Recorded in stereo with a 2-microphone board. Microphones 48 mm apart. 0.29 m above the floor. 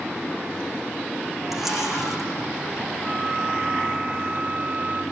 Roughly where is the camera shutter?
Centre.